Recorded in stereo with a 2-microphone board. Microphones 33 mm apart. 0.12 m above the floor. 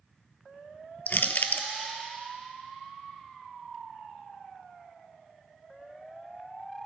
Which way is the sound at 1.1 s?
65° left (ahead or behind).